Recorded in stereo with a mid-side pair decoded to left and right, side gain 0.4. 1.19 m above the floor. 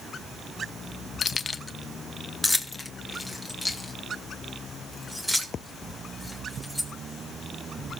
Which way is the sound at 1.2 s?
45° left.